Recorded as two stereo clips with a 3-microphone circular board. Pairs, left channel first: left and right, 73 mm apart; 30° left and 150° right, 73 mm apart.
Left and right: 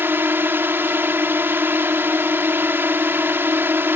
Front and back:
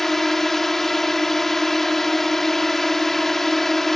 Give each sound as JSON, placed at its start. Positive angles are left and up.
{"t": 0.0, "sound": "a drone", "azimuth_deg": -55}